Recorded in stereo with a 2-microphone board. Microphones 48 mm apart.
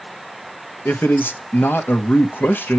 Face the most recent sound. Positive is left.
turn(degrees=50)  # may be behind; listen again after turning